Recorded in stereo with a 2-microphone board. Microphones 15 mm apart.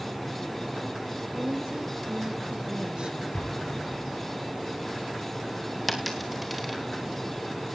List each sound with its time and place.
1.3 s a woman speaking: 75° right (ahead or behind), 4 m; by 3.2 s 70° right (ahead or behind), 4.5 m
3.3 s an explosion: 85° left, 6 m
5.9 s a dropped coin: 5° right (ahead or behind), 3.5 m